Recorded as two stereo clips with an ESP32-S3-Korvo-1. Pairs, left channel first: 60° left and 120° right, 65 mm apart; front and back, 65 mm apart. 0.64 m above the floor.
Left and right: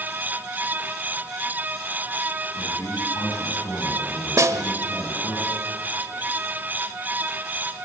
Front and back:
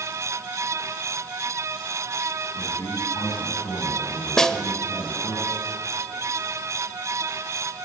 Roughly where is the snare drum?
Right.